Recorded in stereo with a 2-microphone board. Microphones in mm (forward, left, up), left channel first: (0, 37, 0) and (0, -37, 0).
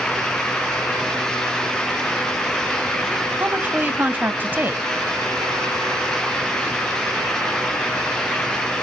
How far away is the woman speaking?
About 1.0 m.